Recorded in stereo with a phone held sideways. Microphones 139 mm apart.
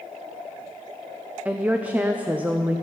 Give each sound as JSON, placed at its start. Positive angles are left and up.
{"t": 1.4, "sound": "a woman speaking", "side_deg": -10, "distance_m": 0.6}